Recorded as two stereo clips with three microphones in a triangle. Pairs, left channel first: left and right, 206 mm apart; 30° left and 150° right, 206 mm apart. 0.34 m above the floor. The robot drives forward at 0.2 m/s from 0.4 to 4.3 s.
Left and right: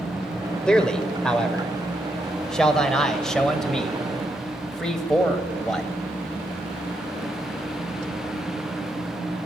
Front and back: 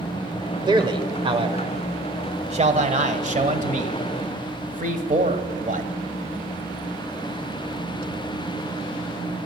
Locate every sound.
0.7 s a man speaking: 170° left, 1.1 m; by 5.9 s 175° left, 1.6 m